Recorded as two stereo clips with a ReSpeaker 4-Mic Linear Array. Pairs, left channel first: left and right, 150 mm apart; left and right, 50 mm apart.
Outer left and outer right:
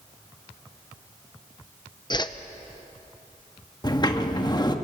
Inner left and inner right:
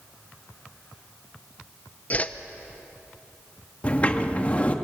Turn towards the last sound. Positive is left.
turn(degrees=30)  # may be behind; listen again after turning